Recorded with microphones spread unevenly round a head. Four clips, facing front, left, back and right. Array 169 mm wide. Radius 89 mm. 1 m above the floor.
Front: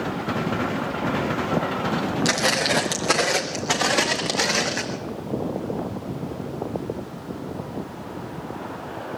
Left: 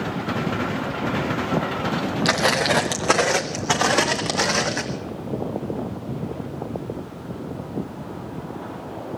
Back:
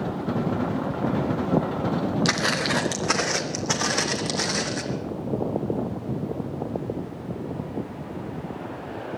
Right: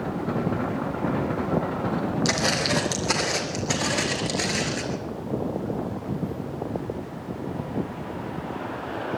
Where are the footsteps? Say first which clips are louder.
Left 4 dB, front 2 dB; 95° left, 2.5 m; by 4.8 s 60° left, 4 m.